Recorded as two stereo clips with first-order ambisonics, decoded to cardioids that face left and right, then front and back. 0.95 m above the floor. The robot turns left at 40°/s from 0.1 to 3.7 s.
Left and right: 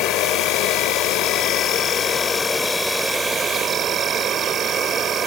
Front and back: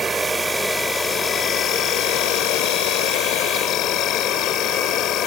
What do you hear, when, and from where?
0.0 s an insect: 110° left; by 5.3 s 35° right